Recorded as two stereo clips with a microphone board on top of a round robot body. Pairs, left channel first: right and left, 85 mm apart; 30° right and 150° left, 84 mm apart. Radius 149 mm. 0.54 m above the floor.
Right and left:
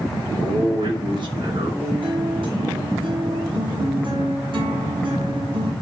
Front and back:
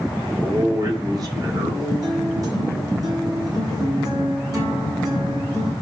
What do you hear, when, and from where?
0.2 s a man speaking: 105° left, 4.5 m
1.8 s a guitar: 105° left, 5 m